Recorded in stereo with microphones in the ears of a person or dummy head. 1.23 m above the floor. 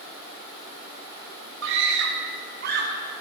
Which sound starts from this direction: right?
A scream, at 1.6 s.